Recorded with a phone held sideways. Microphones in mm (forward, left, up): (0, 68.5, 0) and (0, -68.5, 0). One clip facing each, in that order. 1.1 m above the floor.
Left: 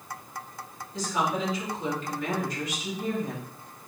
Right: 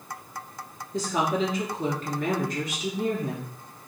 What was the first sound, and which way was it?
A woman speaking, 50° right (ahead or behind).